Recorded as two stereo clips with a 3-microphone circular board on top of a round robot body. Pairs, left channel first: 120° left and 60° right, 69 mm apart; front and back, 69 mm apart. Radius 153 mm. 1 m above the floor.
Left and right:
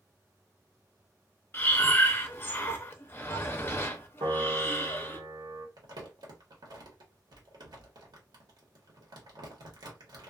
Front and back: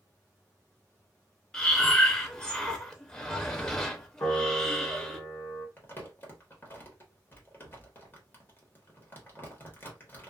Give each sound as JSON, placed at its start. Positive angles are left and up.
{"t": 1.5, "sound": "breathing", "azimuth_deg": 75, "distance_m": 0.9}
{"t": 4.2, "sound": "a piano", "azimuth_deg": -50, "distance_m": 1.0}
{"t": 5.8, "sound": "crumpling", "azimuth_deg": -60, "distance_m": 1.4}